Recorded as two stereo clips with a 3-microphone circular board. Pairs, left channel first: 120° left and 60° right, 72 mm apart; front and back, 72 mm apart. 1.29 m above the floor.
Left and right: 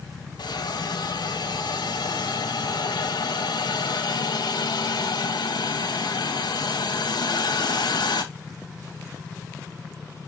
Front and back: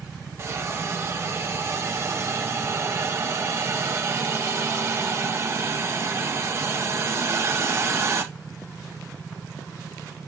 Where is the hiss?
130° left, 1.7 m.